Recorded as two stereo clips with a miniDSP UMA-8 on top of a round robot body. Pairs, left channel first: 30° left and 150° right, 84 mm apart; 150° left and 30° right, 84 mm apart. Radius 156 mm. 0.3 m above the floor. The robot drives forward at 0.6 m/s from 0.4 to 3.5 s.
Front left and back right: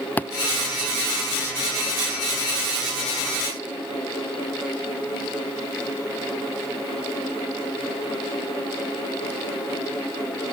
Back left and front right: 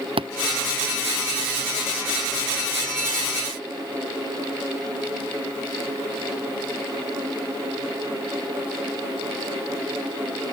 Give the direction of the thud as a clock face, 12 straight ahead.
1 o'clock.